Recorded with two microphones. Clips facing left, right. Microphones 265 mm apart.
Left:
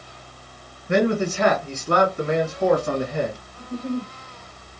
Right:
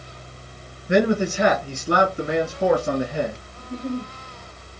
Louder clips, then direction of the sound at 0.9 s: Right 1 dB; 15° right (ahead or behind).